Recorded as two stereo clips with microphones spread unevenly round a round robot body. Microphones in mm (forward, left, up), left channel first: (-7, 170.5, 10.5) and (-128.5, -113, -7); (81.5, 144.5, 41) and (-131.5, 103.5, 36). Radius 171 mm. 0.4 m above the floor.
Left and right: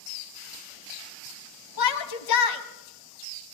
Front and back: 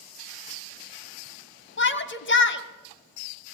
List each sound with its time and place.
1.8 s a shout: 40° left, 2.5 m